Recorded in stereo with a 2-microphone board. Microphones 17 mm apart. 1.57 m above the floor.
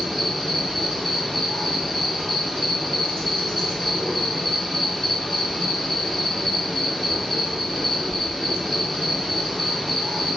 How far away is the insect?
About 1.5 m.